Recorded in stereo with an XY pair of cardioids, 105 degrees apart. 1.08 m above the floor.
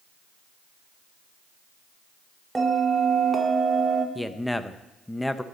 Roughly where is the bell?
Ahead.